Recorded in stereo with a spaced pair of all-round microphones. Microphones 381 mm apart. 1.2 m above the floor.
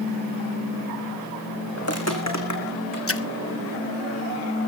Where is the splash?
35° left (ahead or behind), 0.7 m.